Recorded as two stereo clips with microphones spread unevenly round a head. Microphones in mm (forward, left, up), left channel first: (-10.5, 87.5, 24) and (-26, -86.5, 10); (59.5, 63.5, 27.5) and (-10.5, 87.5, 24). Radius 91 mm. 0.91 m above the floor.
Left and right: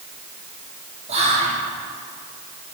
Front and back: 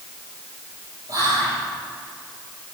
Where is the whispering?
145° right, 2.0 m.